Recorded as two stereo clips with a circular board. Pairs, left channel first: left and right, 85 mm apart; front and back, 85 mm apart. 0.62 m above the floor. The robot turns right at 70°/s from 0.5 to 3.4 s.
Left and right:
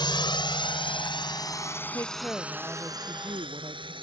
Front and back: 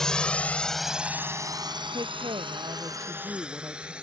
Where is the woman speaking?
140° left; by 3.9 s 120° right.